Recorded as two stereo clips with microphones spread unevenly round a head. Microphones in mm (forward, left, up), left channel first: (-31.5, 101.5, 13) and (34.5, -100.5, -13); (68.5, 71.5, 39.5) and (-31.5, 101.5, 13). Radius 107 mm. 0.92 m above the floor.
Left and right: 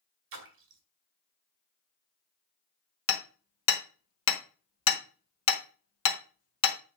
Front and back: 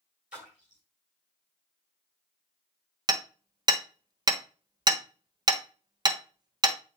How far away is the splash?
About 1.4 m.